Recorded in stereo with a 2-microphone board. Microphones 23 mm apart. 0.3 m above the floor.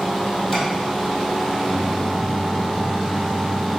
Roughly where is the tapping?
Centre.